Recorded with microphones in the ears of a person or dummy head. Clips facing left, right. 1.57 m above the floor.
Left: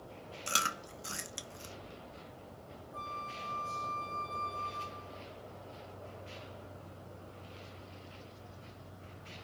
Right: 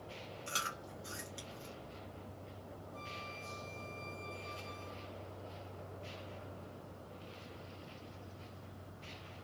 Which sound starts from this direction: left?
Chewing, at 0.5 s.